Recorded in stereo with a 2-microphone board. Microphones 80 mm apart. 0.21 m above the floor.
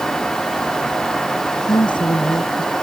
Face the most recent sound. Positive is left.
turn(degrees=65)  # may be behind; listen again after turning